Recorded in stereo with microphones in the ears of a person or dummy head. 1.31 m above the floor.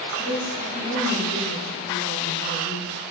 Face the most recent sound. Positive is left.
turn(degrees=45)  # may be behind; listen again after turning